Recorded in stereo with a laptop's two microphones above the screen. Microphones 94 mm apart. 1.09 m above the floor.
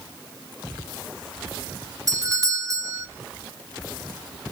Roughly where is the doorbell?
Right.